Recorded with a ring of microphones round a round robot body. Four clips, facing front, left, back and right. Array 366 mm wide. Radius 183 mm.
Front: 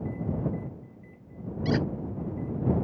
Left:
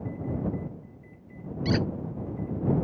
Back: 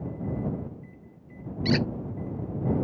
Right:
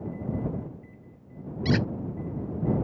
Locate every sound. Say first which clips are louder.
1.6 s a squeak: right 1 dB, back 2 dB; 140° right